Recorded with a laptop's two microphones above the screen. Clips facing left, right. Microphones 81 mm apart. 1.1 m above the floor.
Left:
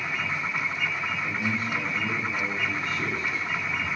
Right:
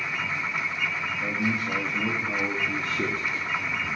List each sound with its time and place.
1.2 s a man speaking: 70° right (ahead or behind), 2 m